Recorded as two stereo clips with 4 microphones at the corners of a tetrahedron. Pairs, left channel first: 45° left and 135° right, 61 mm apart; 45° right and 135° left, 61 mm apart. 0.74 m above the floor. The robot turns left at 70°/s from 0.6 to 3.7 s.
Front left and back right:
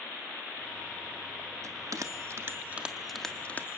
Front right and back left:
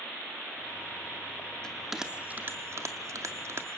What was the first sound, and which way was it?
A bell, 120° right.